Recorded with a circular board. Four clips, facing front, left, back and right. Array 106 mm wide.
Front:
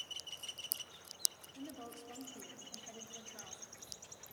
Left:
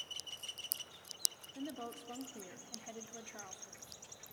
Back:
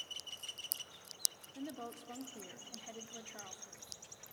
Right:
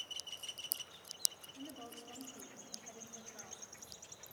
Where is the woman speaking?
130° left, 1.0 m.